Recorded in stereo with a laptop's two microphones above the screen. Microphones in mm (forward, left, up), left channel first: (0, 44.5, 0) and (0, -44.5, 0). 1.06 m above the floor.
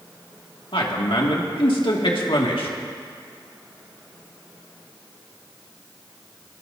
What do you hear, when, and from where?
0.7 s a man speaking: 80° left, 2 m